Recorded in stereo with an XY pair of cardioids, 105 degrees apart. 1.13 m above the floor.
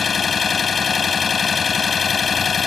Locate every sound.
0.0 s an engine running: 40° left